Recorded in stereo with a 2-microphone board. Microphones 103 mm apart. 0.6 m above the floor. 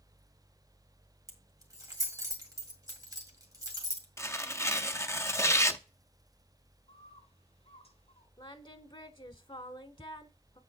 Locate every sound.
1.3 s keys jangling: 35° right (ahead or behind), 1.9 m
4.2 s tearing paper: 30° left (ahead or behind), 0.6 m
6.9 s a bird: 80° left, 5 m
8.4 s singing: 55° left (ahead or behind), 0.7 m